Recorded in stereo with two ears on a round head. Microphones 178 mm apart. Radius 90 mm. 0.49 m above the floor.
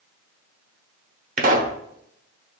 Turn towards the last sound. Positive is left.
turn(degrees=-40)  # may be behind; listen again after turning